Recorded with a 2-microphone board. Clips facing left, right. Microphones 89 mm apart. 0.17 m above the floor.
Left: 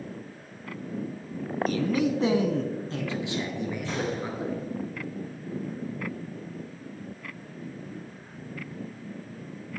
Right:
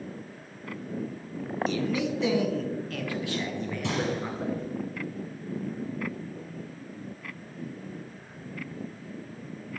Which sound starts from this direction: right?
A gunshot, at 3.8 s.